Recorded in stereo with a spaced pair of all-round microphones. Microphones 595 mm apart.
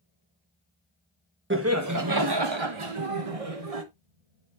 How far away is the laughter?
About 1.1 m.